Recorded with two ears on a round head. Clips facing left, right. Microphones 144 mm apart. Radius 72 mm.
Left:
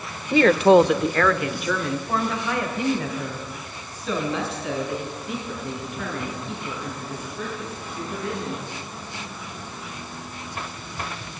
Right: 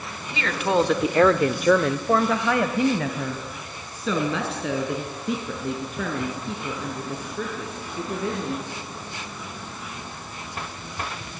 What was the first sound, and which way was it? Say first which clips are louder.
A woman speaking: left 9 dB; 45° left (ahead or behind).